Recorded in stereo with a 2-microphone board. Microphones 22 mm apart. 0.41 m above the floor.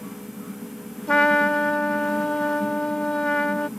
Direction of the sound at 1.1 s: 40° left (ahead or behind).